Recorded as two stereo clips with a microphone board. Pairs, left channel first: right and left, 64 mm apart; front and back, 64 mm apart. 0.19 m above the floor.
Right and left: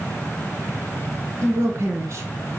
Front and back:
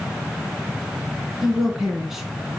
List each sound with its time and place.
1.4 s a woman speaking: 100° left, 2.5 m